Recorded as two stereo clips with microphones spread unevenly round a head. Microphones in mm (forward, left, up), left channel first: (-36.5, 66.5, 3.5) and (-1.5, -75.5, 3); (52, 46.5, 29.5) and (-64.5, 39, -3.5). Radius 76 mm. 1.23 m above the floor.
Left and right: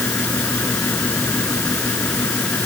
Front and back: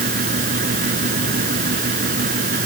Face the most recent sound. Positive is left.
turn(degrees=-175)